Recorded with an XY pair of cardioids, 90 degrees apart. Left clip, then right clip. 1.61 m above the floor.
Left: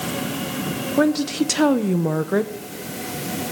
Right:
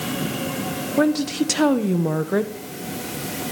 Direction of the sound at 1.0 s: 5° left.